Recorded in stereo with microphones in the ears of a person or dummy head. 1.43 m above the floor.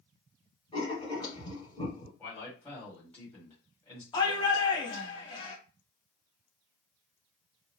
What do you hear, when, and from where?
0.7 s writing: 25° left (ahead or behind), 2.5 m
2.2 s a man speaking: 10° left (ahead or behind), 2.5 m
4.1 s a shout: 25° left (ahead or behind), 1.3 m